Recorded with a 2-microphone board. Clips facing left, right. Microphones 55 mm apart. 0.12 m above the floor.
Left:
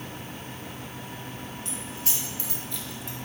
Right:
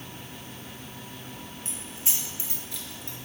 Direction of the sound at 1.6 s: 30° right (ahead or behind).